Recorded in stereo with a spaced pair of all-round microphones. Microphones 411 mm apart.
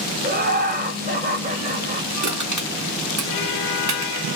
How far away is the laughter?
About 1.1 m.